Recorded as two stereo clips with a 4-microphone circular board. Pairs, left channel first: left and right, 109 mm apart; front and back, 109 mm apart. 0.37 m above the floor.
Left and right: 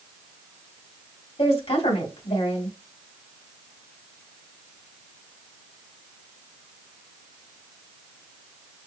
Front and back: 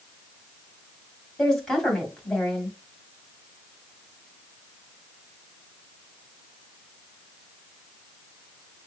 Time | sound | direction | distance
1.4 | a woman speaking | 85° left | 2 m